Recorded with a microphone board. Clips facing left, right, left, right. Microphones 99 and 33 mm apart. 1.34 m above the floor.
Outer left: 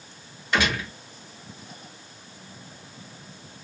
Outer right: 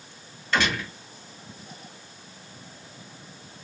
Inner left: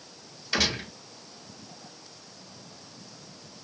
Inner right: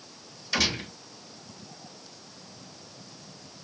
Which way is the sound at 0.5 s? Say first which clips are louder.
Outer left 1 dB, even; 15° left (ahead or behind).